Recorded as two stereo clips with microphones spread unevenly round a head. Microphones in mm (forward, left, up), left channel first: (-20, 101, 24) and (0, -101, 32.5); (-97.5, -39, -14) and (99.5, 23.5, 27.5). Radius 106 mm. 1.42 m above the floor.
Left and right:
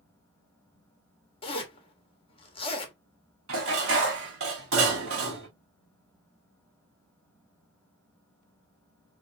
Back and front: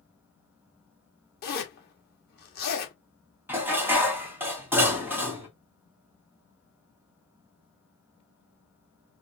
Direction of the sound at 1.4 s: 160° left.